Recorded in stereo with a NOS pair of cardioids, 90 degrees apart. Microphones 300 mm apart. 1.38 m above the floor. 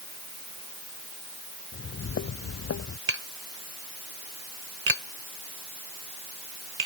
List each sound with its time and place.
1.7 s footsteps: 45° left; by 3.0 s 50° left
3.1 s tapping: 45° right